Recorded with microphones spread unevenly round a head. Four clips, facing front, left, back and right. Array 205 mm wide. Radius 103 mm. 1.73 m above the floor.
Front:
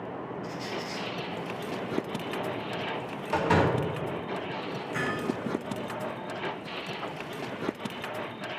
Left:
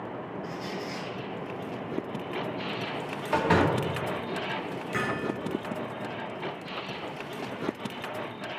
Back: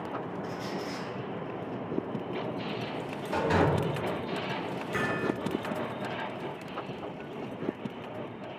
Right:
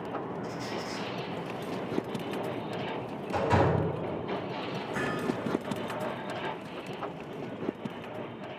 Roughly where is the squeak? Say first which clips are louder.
Even, even; right.